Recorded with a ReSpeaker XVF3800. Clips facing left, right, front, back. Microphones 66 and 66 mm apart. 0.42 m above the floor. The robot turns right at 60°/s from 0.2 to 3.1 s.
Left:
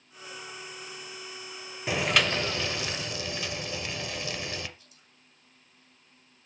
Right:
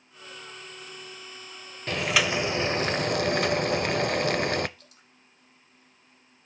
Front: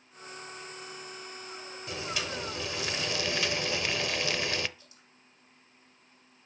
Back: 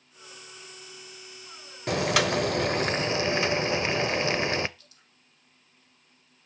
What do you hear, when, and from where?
1.9 s boiling: 170° left, 0.5 m; by 4.7 s 120° right, 0.5 m
4.8 s dripping: 70° right, 4 m